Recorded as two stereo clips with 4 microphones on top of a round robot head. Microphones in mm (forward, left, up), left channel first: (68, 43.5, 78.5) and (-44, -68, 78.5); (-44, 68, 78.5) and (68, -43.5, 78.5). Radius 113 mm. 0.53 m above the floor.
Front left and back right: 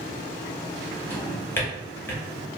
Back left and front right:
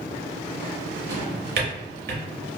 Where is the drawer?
30° right, 0.7 m.